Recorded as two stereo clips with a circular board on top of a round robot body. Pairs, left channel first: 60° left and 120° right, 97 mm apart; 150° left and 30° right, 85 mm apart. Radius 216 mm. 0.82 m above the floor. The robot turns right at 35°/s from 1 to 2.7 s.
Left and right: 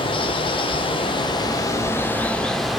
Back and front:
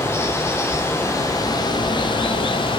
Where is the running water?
90° left, 0.9 m; by 2.8 s 150° left, 0.9 m.